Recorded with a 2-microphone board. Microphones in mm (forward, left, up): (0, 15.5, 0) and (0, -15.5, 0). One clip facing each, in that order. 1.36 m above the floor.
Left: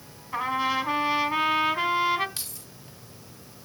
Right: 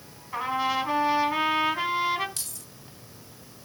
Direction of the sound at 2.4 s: 20° left (ahead or behind).